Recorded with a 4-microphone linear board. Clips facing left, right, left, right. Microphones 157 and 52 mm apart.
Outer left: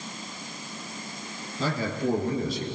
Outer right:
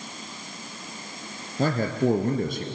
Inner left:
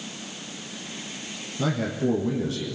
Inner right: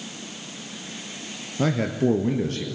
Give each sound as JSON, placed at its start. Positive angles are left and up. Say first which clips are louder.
{"t": 1.6, "sound": "a man speaking", "louder": "outer right 5 dB, inner right 3 dB", "side_deg": -55, "distance_m": 2.5}